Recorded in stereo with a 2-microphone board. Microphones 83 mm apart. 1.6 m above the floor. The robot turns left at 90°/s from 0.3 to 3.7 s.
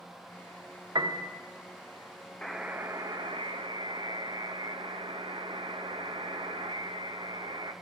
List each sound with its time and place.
0.9 s a piano: 55° right (ahead or behind), 1.2 m; by 1.3 s 50° right (ahead or behind), 1.2 m
2.4 s a buzzer: 10° left, 0.8 m; by 7.7 s 110° right, 0.8 m